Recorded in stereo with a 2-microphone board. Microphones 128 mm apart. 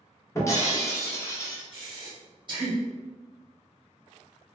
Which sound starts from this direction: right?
Breathing, at 1.7 s.